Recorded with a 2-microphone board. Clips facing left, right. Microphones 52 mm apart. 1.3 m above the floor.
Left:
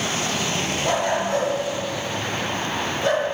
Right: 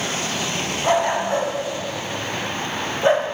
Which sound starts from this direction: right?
A dog barking, at 0.8 s.